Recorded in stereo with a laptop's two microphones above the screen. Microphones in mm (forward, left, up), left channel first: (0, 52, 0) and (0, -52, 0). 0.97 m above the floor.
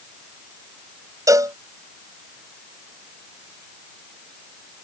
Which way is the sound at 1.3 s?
35° right (ahead or behind).